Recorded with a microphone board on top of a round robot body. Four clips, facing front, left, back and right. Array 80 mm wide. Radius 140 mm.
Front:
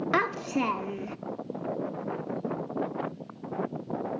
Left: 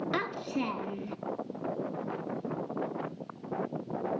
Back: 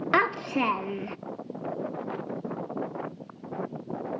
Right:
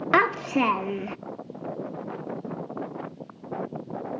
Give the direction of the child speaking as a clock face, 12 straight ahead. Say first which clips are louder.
Right 15 dB, back 3 dB; 4 o'clock.